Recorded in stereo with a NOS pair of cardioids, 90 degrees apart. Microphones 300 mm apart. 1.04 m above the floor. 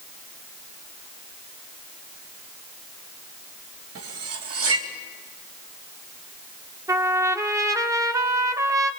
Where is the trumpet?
10° right, 2 m.